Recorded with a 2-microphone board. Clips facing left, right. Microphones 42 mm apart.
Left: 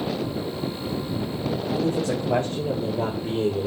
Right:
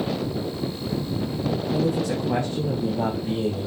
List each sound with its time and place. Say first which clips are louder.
1.7 s a man speaking: even; 55° left (ahead or behind), 5 m; by 3.7 s 50° left (ahead or behind), 3 m